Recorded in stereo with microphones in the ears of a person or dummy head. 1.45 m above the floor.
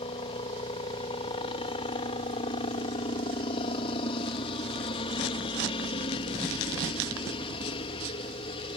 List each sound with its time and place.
0.0 s a helicopter: 35° left (ahead or behind)